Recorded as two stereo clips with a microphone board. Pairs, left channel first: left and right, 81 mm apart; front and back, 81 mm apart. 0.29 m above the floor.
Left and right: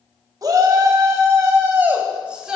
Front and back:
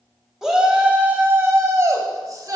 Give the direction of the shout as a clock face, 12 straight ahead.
3 o'clock.